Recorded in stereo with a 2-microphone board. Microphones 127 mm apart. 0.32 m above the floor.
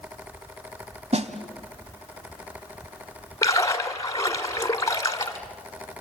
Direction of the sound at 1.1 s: 60° right (ahead or behind).